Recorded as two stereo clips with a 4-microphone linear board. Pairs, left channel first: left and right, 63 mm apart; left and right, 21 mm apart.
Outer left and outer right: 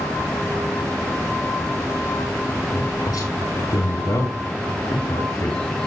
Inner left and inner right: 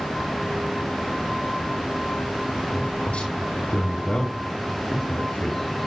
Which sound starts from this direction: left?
A man speaking, at 2.7 s.